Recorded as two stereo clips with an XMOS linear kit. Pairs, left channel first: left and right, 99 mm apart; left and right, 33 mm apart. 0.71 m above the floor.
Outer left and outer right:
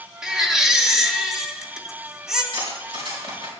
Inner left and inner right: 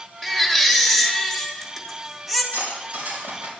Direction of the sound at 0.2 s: 5° right (ahead or behind).